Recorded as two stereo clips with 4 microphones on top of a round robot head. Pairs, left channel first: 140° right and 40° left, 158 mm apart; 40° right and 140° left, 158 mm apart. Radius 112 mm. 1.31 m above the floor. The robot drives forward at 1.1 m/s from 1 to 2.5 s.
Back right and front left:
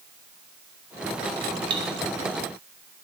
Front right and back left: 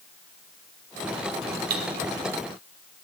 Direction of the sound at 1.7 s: 105° left.